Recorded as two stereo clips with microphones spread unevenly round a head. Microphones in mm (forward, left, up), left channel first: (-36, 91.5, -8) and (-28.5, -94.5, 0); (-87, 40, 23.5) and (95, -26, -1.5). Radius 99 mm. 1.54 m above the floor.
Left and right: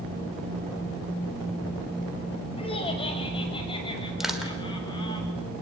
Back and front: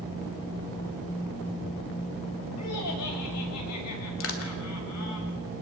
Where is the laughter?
155° left, 6 m; by 5.2 s 160° left, 7.5 m.